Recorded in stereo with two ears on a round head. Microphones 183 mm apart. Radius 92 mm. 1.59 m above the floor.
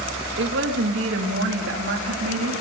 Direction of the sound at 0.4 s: 60° right (ahead or behind).